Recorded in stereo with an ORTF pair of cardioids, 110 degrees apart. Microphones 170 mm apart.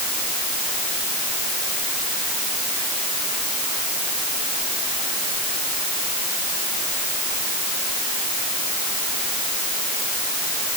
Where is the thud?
No thud in this recording.